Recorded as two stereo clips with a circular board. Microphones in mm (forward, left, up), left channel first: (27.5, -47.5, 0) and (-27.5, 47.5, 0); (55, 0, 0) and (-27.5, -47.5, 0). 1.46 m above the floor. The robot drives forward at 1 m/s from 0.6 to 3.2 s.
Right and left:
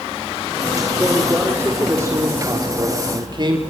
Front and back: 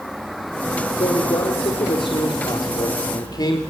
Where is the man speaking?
45° left, 4.5 m; by 3.6 s 75° left, 3.5 m.